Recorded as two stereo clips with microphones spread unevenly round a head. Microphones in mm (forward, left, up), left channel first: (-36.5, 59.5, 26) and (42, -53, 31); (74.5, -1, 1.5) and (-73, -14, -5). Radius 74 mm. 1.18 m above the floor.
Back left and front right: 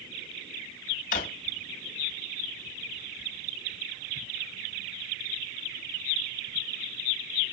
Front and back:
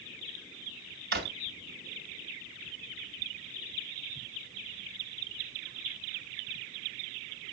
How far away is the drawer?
About 2 m.